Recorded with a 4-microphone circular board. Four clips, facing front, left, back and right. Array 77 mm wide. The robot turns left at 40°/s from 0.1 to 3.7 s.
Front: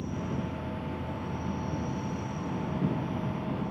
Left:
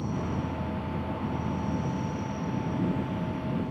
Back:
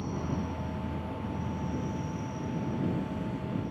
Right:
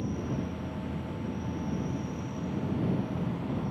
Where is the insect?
125° left; by 3.7 s 20° right.